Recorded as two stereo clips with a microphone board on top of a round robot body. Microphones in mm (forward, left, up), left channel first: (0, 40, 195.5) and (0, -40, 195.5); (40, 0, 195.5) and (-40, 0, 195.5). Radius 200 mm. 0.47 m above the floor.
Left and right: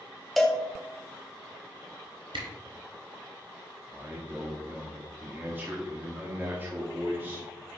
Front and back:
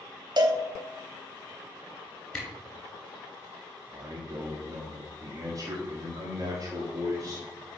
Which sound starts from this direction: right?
A camera shutter, at 2.3 s.